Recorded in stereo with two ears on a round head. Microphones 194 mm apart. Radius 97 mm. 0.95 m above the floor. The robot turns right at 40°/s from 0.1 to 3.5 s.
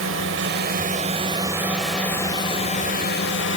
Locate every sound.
0.0 s a drone: 70° right; by 3.6 s 65° left